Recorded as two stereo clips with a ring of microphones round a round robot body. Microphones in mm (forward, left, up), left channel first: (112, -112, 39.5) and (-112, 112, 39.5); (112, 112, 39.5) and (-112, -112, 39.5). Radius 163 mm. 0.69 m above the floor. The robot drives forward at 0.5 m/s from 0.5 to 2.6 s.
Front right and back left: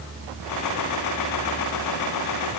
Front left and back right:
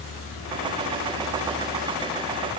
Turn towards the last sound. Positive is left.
No sound to turn to.